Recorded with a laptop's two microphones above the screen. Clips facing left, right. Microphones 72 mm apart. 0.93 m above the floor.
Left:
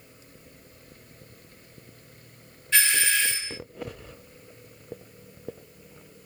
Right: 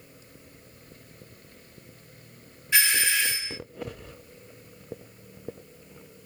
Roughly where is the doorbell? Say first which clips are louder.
Even; centre.